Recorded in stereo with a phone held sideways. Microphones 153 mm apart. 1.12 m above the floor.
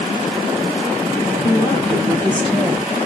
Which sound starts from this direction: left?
A woman speaking, at 1.4 s.